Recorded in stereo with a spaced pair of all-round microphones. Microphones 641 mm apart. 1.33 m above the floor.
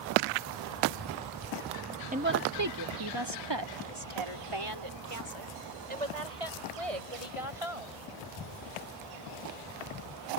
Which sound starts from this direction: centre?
A woman speaking, at 2.1 s.